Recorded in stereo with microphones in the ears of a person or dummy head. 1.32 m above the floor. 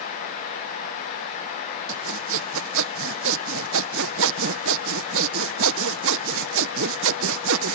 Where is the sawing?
70° right (ahead or behind).